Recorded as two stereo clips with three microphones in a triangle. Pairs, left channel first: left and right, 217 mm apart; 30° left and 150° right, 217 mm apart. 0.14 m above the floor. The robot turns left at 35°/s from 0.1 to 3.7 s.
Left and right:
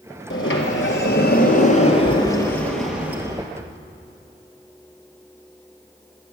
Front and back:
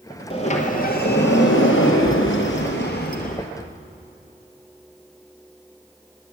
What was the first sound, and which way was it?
A sliding door, 90° left.